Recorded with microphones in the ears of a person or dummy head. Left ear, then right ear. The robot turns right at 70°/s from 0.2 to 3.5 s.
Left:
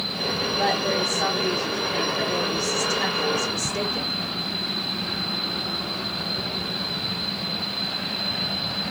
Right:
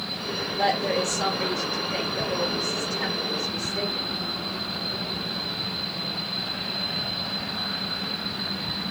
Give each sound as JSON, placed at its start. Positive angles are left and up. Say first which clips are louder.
{"t": 0.6, "sound": "a woman speaking", "louder": "right 1 dB", "azimuth_deg": -95, "distance_m": 0.9}